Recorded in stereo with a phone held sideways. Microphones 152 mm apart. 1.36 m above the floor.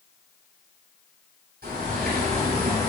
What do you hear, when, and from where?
1.6 s a bird: 75° right (ahead or behind), 2.5 m